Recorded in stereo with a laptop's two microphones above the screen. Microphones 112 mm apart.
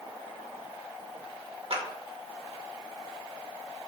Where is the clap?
60° right (ahead or behind), 2.5 m.